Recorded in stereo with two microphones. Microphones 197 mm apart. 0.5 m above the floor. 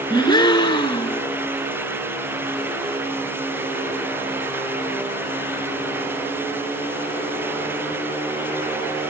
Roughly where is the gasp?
Left.